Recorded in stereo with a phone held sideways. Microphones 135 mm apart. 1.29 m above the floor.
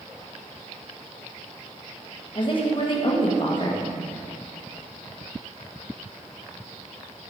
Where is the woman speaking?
40° left (ahead or behind), 1.3 m.